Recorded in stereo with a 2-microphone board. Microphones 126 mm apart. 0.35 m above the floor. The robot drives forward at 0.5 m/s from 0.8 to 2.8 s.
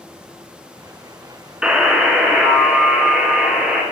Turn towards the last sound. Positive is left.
turn(degrees=-5)  # may be behind; listen again after turning